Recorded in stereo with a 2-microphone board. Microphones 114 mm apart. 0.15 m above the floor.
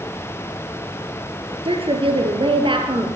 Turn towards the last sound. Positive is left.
turn(degrees=-45)  # may be behind; listen again after turning